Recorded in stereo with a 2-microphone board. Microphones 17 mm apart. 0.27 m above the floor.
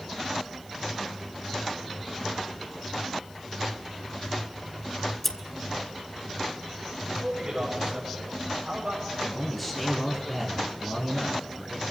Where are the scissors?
15° left (ahead or behind), 0.8 m.